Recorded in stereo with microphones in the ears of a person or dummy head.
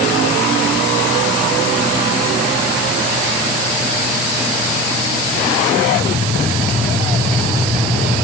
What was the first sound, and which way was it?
Only background noise.